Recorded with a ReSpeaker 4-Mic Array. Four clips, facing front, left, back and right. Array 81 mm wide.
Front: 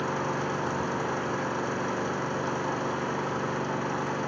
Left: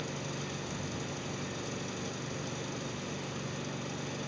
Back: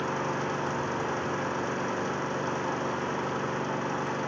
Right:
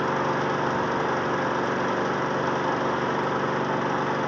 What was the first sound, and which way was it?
An engine running, 90° right.